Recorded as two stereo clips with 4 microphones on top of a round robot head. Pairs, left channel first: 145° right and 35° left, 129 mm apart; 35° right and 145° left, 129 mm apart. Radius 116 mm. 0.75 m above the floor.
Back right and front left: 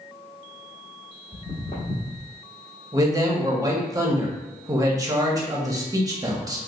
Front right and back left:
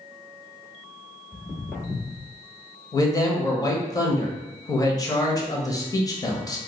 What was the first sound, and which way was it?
Footsteps, 150° right.